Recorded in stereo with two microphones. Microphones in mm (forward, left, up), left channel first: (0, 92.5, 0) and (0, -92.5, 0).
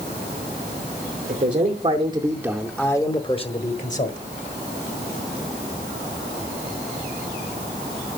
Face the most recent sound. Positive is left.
turn(degrees=45)  # may be behind; listen again after turning